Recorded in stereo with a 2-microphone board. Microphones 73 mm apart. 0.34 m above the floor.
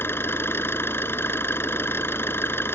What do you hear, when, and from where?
0.0 s an engine running: 35° left (ahead or behind)